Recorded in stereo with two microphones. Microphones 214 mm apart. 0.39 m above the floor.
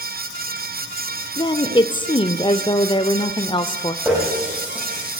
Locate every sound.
1.4 s a woman speaking: 20° left (ahead or behind), 1.0 m
4.0 s a running tap: 5° right (ahead or behind), 10 m